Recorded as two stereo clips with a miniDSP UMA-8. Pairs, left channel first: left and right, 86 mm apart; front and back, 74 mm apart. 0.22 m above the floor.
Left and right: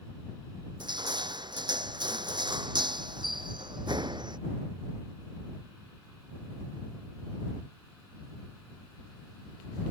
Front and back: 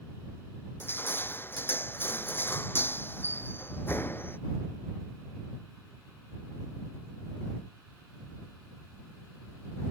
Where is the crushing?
60° right.